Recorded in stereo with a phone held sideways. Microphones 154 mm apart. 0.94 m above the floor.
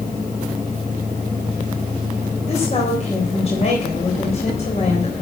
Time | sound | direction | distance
2.5 | a woman speaking | 45° left (ahead or behind) | 3.5 m